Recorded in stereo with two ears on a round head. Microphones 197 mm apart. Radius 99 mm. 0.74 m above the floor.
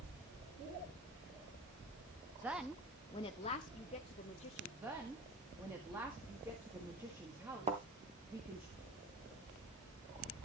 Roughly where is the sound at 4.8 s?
Centre.